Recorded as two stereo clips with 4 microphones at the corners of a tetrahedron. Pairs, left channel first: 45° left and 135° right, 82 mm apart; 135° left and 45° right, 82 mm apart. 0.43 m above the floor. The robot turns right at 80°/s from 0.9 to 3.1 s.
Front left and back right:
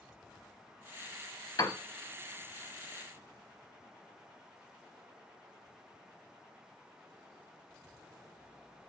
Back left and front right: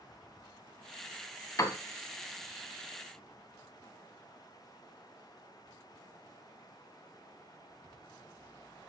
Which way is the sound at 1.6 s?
80° left.